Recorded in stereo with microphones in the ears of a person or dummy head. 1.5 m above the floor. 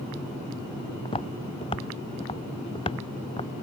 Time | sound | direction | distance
1.1 | footsteps | 25° left (ahead or behind) | ?